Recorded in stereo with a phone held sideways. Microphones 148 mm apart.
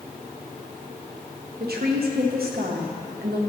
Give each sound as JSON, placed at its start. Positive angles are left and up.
{"t": 1.6, "sound": "a woman speaking", "side_deg": -85, "distance_m": 1.2}